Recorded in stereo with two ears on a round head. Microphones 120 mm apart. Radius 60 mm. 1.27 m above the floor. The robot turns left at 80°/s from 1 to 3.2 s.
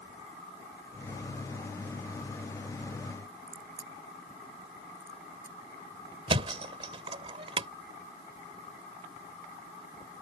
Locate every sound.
3.5 s a crack: 20° right (ahead or behind)
6.3 s a thud: 45° right (ahead or behind)